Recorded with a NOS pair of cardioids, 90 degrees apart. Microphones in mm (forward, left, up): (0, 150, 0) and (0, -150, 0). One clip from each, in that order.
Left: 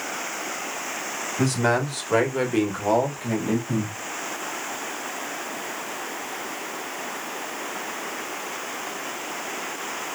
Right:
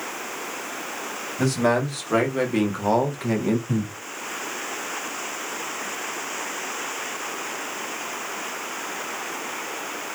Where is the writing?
No writing in this recording.